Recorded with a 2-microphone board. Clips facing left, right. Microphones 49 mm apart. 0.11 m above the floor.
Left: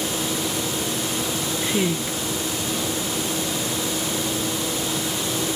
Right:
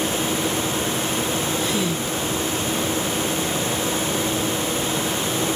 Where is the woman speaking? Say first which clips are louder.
Even; 25° left (ahead or behind), 1.3 m.